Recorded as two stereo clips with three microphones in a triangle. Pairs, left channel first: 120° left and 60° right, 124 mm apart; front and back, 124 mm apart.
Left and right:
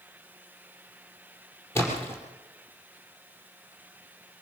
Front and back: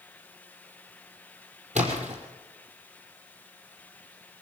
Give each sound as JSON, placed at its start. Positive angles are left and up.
{"t": 1.8, "sound": "a splash", "azimuth_deg": -170, "distance_m": 5.0}